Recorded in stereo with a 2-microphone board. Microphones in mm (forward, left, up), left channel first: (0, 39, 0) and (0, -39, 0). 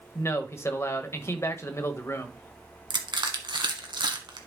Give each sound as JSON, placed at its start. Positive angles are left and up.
{"t": 0.1, "sound": "a man speaking", "side_deg": 35, "distance_m": 1.2}
{"t": 2.9, "sound": "crushing", "side_deg": -70, "distance_m": 1.4}